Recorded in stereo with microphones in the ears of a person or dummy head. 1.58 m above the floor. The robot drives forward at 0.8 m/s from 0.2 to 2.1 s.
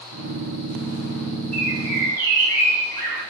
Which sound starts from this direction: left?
A bird, at 1.5 s.